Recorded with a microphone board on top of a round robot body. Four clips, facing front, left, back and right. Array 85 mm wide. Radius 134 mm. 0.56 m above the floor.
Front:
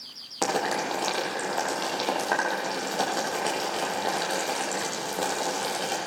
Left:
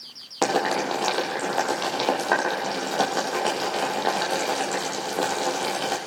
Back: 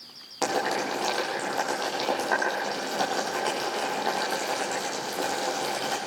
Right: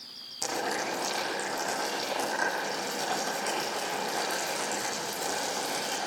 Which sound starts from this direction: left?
Boiling, at 0.4 s.